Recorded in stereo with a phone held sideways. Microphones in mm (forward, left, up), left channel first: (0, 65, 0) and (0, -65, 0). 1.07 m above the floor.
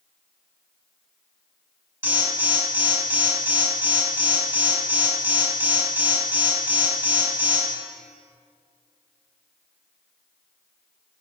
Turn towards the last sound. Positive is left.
turn(degrees=-20)  # may be behind; listen again after turning